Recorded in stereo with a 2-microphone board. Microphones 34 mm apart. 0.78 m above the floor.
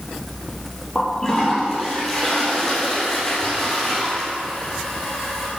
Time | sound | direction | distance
0.9 | a toilet flushing | 15° left (ahead or behind) | 3.5 m